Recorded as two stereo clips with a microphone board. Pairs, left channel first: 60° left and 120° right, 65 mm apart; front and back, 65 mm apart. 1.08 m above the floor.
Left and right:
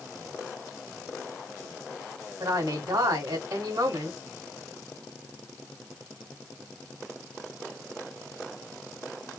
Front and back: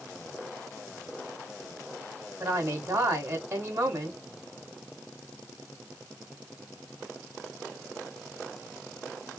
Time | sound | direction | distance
2.4 | a woman speaking | 130° right | 2.5 m